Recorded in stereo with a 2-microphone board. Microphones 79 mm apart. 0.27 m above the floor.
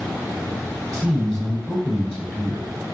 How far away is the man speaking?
About 1.3 m.